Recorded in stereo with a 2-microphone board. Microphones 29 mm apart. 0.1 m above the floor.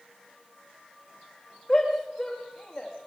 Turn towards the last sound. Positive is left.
turn(degrees=15)  # may be behind; listen again after turning